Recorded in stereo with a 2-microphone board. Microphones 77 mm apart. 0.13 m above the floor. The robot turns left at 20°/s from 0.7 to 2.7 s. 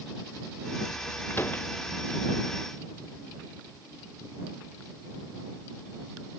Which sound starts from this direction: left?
A door slam, at 1.3 s.